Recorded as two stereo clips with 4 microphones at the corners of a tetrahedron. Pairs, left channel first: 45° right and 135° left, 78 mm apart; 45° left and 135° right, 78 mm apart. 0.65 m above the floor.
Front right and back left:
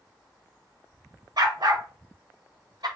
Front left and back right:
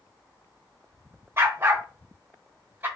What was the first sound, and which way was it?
A dog barking, 165° left.